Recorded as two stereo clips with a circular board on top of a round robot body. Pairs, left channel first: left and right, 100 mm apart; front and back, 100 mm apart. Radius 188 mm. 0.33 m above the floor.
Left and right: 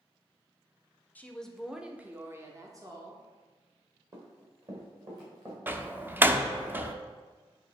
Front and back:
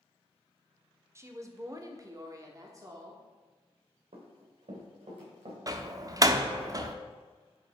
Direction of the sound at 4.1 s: 150° right.